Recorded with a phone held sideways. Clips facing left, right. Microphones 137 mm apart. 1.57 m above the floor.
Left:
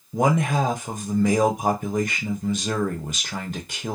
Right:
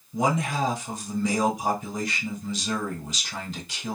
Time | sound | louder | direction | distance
0.1 | a man speaking | left 4 dB | 55° left (ahead or behind) | 0.7 m